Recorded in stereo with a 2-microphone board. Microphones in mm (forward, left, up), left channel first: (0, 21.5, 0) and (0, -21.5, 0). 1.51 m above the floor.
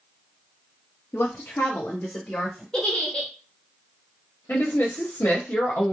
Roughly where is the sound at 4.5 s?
Left.